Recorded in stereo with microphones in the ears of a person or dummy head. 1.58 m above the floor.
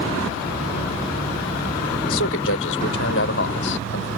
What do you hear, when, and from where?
2.1 s a man speaking: 80° left; by 4.1 s 70° left (ahead or behind)